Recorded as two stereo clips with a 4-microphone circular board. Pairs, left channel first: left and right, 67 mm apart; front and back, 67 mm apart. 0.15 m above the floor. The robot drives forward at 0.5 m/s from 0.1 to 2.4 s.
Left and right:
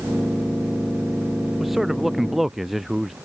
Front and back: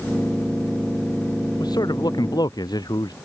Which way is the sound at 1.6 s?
5° right.